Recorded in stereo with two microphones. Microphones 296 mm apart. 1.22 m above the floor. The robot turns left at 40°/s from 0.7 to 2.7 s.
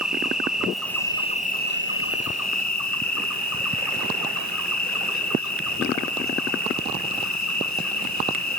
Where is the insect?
Straight behind, 1.6 m; by 8.6 s 100° left, 1.6 m.